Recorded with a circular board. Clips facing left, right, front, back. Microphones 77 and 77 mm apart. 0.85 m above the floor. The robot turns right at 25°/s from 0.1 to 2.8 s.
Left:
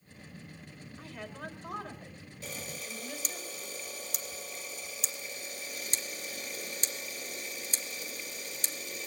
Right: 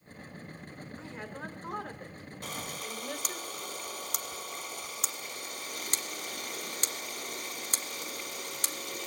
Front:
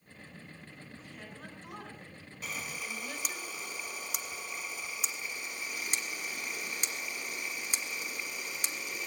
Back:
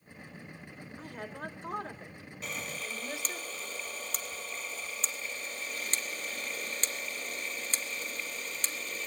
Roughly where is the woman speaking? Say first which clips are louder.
Even, back 9 dB; behind right.